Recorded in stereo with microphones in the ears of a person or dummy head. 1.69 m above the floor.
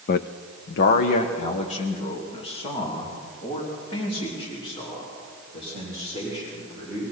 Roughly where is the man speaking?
Left.